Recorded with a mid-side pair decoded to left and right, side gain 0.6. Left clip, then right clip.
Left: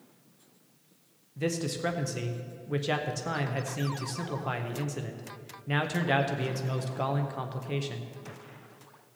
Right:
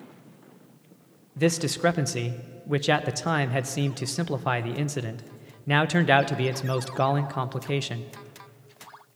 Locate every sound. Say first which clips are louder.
1.4 s a man speaking: right 7 dB; 40° right, 0.6 m